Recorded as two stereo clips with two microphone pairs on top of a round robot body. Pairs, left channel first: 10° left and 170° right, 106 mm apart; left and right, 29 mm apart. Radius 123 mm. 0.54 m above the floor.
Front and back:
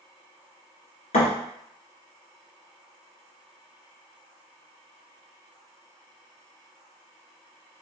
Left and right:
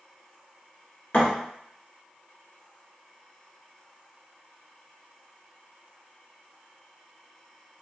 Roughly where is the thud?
Ahead left.